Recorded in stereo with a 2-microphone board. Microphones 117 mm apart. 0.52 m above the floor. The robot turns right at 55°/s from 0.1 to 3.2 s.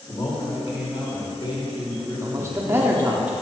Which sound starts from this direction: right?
A man speaking, at 2.2 s.